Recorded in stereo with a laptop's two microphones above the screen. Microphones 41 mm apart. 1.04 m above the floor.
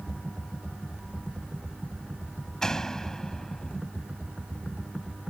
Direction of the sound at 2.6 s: 15° left (ahead or behind).